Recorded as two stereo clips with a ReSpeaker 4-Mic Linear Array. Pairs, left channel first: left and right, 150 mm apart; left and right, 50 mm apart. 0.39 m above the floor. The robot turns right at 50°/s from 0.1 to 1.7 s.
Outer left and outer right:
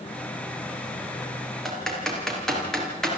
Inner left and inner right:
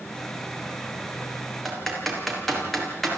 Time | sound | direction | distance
1.6 | typing on a keyboard | centre (ahead or behind) | 5 m